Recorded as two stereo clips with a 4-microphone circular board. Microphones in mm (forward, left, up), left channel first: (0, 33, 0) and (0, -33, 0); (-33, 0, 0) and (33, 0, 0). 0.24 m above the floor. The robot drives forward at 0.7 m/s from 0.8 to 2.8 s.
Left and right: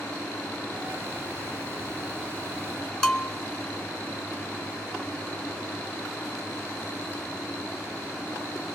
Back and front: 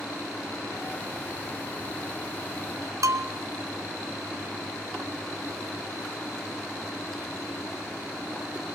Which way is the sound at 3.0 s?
10° left.